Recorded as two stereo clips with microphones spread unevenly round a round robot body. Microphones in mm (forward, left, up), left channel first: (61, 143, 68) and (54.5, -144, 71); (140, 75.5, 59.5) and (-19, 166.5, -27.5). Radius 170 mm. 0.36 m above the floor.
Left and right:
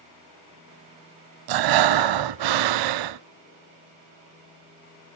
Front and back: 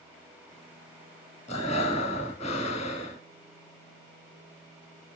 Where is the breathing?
90° right, 0.5 m.